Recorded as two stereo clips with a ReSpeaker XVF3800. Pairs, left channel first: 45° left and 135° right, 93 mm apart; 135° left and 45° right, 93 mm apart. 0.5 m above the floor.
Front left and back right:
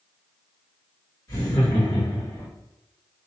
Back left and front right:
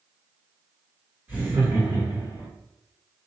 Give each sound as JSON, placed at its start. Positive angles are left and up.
{"t": 1.3, "sound": "laughter", "azimuth_deg": 15, "distance_m": 1.1}